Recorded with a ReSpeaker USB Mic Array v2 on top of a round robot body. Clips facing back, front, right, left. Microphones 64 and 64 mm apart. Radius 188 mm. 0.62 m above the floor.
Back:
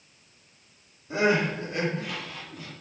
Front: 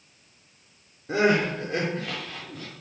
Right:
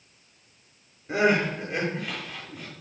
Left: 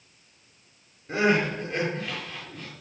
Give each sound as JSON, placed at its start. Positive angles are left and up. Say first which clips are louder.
{"t": 1.1, "sound": "crying", "louder": "front 2 dB, right 1 dB", "azimuth_deg": -10, "distance_m": 7.5}